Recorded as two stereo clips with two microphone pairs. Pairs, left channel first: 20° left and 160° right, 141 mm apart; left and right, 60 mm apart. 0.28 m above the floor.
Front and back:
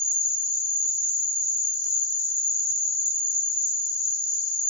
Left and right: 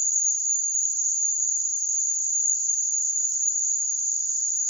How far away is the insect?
About 1.1 m.